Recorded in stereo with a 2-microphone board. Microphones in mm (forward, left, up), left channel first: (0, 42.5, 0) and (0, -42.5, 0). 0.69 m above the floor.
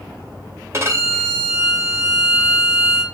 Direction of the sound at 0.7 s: 35° right (ahead or behind).